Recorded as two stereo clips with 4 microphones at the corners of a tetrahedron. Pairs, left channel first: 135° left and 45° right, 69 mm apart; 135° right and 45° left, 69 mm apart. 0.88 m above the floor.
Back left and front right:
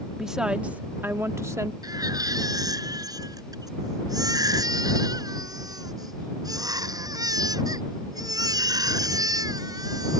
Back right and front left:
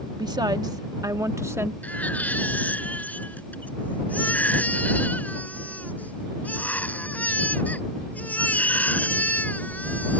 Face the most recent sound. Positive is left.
turn(degrees=-65)